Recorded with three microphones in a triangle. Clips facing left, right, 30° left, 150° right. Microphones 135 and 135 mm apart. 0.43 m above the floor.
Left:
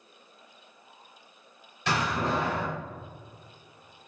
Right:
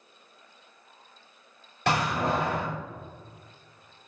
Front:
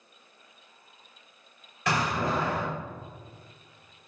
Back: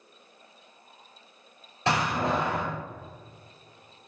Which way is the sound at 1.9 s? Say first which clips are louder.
Right 2 dB, back 2 dB; 90° right.